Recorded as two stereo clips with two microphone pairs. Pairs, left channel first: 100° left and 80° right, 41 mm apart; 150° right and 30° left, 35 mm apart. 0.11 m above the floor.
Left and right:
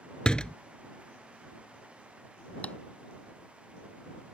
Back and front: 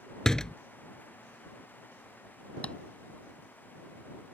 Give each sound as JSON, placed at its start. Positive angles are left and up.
{"t": 0.2, "sound": "a door slam", "azimuth_deg": 145}
{"t": 2.6, "sound": "tapping", "azimuth_deg": 155}